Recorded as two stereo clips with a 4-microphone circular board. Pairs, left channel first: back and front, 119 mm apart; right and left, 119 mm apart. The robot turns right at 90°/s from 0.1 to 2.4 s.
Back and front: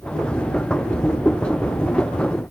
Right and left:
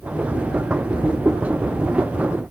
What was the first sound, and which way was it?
Only background noise.